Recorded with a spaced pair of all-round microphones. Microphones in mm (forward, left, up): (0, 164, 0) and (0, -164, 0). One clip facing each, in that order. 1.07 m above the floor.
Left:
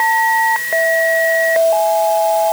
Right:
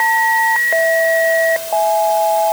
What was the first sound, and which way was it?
Only background noise.